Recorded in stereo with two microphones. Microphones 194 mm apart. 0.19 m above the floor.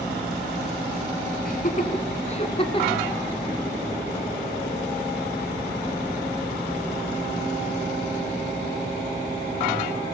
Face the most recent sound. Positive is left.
turn(degrees=25)  # may be behind; listen again after turning